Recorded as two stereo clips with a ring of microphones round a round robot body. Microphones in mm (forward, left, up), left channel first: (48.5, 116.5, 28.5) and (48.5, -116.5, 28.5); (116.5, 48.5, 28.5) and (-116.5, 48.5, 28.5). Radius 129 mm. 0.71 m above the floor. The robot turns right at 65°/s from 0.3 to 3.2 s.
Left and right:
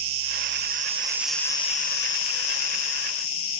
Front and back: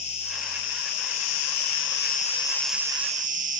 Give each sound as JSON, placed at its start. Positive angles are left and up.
{"t": 0.0, "sound": "an insect", "azimuth_deg": -65, "distance_m": 0.8}